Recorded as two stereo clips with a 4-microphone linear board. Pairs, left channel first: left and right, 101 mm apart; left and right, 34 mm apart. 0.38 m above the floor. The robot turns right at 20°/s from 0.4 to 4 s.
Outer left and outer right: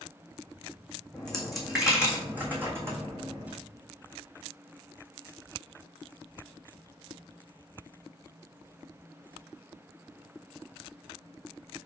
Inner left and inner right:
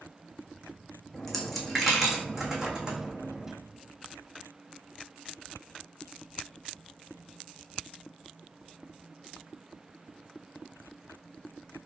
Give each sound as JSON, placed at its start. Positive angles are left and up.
{"t": 1.1, "sound": "a dropped coin", "side_deg": 10, "distance_m": 1.2}